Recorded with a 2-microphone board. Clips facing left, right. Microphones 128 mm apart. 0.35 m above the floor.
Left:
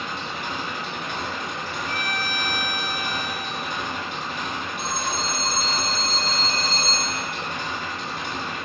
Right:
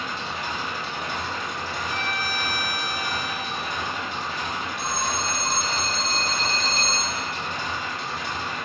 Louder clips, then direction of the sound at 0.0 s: Even; 60° left (ahead or behind).